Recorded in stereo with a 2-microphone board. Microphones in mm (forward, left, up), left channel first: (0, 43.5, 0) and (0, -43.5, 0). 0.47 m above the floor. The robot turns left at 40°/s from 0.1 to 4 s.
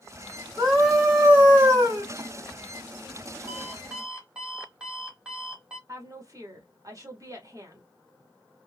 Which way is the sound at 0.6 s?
10° left.